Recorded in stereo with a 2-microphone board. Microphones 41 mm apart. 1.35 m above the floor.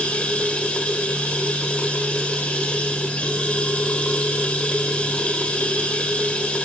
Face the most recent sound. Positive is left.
turn(degrees=35)  # may be behind; listen again after turning